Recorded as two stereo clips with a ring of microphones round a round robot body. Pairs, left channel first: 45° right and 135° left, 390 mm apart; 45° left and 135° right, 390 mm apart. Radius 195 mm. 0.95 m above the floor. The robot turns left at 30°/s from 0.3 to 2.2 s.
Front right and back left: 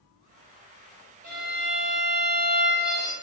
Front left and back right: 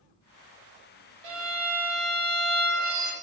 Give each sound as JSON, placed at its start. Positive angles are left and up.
{"t": 1.2, "sound": "a violin", "azimuth_deg": -155, "distance_m": 0.7}